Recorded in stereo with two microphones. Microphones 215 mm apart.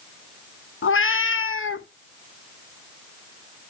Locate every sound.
0.8 s a cat meowing: 70° left (ahead or behind), 0.5 m